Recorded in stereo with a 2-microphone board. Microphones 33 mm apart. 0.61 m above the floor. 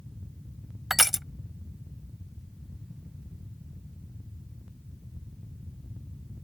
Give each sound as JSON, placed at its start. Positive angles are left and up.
{"t": 0.9, "sound": "crushing", "side_deg": -5}